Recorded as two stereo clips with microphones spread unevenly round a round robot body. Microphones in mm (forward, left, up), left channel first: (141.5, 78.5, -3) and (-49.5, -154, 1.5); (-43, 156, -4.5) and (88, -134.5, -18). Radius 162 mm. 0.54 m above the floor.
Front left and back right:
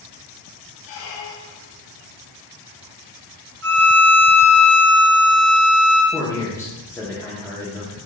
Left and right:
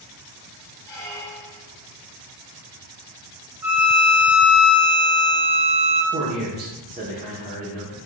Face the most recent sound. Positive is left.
turn(degrees=-25)